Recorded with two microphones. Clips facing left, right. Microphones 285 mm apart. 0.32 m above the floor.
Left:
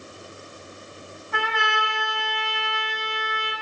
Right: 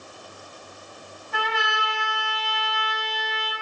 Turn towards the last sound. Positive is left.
turn(degrees=65)  # may be behind; listen again after turning